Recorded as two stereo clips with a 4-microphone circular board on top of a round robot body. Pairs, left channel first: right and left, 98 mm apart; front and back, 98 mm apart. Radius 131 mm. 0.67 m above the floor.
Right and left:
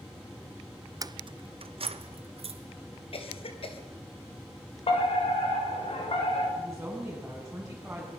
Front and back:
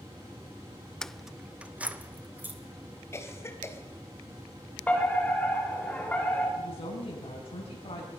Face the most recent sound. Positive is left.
turn(degrees=5)